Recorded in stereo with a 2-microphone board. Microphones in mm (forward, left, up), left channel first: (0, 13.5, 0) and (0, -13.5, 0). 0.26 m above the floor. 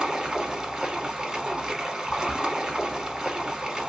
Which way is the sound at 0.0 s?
25° right (ahead or behind).